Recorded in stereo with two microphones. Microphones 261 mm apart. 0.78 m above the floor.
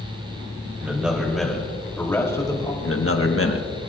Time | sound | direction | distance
0.8 | a man speaking | 5° right (ahead or behind) | 3.5 m
2.8 | a man speaking | 55° left (ahead or behind) | 1.4 m